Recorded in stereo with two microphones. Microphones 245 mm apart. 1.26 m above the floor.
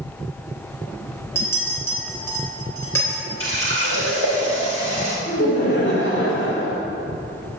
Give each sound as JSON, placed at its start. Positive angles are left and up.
{"t": 1.4, "sound": "a clink", "side_deg": 10, "distance_m": 3.5}
{"t": 3.4, "sound": "a running tap", "side_deg": -55, "distance_m": 3.5}
{"t": 5.3, "sound": "laughter", "side_deg": 45, "distance_m": 3.0}